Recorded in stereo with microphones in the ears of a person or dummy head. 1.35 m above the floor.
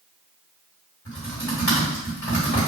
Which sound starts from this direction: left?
Typing on a keyboard, at 1.1 s.